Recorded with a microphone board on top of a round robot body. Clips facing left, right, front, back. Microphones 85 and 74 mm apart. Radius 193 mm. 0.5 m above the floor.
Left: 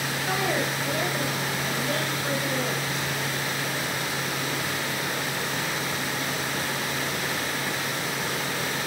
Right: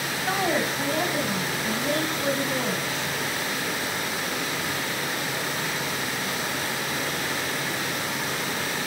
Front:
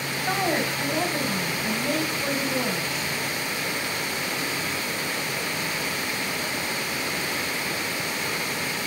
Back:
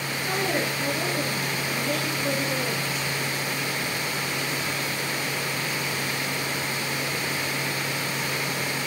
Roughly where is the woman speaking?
Ahead right.